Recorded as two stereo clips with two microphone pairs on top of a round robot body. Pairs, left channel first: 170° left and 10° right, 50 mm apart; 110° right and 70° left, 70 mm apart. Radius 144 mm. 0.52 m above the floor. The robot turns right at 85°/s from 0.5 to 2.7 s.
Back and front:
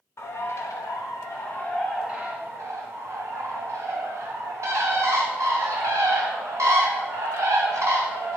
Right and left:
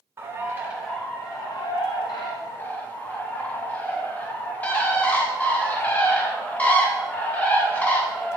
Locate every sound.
0.2 s a bird: 135° left, 0.7 m; by 8.4 s 40° right, 0.7 m